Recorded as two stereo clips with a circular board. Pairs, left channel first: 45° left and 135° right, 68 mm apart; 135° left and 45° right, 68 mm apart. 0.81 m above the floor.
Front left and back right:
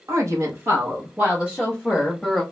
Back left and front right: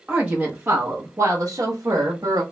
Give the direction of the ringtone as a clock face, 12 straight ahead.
I don't hear a ringtone.